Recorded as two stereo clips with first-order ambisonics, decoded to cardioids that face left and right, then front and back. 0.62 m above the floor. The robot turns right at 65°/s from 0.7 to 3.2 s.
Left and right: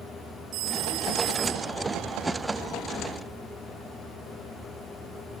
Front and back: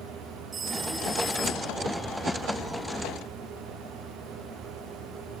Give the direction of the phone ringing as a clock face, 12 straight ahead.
4 o'clock.